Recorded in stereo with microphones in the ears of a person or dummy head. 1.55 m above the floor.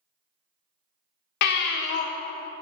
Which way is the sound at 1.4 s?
60° left (ahead or behind).